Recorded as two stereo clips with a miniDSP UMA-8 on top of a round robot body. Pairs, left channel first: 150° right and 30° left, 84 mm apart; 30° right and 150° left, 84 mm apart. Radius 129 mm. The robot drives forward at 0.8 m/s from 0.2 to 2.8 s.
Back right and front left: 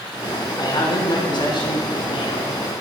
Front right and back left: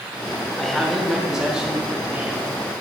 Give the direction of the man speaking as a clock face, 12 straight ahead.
4 o'clock.